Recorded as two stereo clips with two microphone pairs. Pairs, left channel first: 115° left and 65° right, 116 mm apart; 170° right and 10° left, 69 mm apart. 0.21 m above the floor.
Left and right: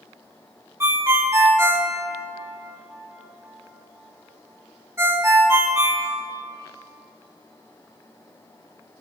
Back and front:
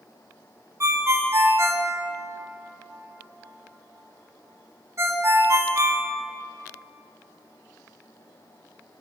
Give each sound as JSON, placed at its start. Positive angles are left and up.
{"t": 0.8, "sound": "a ringtone", "azimuth_deg": -10, "distance_m": 1.3}